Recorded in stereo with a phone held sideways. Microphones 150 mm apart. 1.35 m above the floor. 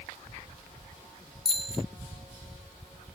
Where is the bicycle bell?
40° left (ahead or behind).